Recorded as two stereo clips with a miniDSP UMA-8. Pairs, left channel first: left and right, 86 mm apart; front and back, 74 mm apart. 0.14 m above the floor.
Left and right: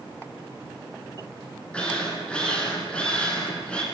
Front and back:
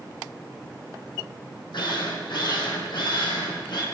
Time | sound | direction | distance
1.7 | a drill | 10° left | 6 m